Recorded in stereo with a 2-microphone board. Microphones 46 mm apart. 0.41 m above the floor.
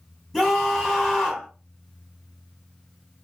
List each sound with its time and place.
0.3 s a scream: 10° left (ahead or behind), 1.5 m